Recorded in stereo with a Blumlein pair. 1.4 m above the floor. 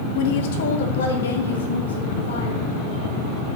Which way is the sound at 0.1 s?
50° left.